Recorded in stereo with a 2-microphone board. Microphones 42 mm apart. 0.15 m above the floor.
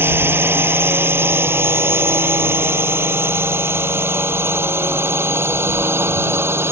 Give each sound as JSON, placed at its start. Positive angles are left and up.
{"t": 0.0, "sound": "a drone", "side_deg": -65}